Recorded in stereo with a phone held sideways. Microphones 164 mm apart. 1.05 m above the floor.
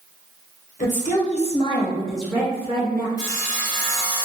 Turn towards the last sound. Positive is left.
turn(degrees=-10)  # may be behind; listen again after turning